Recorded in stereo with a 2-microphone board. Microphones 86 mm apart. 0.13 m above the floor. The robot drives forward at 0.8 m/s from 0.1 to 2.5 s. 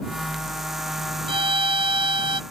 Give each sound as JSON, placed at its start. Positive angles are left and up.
{"t": 1.3, "sound": "a violin", "side_deg": -75}